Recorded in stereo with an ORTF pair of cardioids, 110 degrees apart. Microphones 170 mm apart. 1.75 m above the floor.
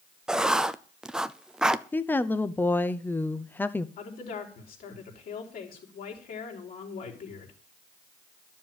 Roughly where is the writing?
Ahead.